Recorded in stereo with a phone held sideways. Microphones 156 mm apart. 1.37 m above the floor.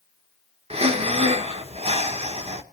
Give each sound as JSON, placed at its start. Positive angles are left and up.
{"t": 0.7, "sound": "breathing", "side_deg": -40, "distance_m": 1.1}